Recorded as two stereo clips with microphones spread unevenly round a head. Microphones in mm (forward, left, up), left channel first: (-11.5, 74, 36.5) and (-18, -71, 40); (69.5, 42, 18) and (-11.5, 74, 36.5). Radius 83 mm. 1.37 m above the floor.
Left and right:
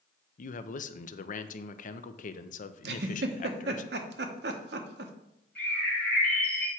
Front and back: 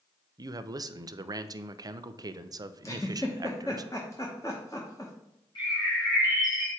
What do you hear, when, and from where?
0.4 s a man speaking: 110° left, 0.6 m
2.8 s a giggle: 95° right, 0.8 m
5.5 s a bird: 5° left, 4 m